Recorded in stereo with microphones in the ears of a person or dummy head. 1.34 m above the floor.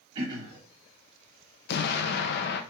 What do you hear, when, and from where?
0.1 s throat clearing: 30° right (ahead or behind), 1.4 m
1.7 s an explosion: 60° left (ahead or behind), 0.5 m